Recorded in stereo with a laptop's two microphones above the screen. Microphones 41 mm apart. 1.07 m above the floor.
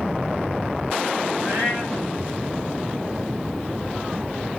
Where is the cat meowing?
40° right (ahead or behind), 3 m.